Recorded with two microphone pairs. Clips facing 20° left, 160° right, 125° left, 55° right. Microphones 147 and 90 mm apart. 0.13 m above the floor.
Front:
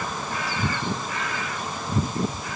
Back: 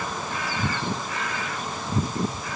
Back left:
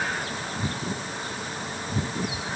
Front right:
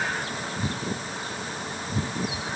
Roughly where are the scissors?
I don't hear scissors.